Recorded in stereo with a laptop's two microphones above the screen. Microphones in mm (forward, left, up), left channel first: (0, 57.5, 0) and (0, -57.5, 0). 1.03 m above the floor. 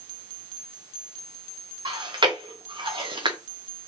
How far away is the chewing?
About 0.6 m.